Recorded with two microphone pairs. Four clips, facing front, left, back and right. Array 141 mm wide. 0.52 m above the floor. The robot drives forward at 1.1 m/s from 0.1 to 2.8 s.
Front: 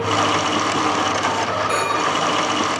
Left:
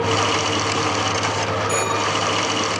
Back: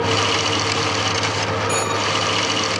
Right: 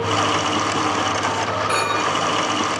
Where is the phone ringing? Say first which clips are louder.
Right 1 dB, front 1 dB; 85° right, 5 m; by 2.0 s 90° right, 5 m.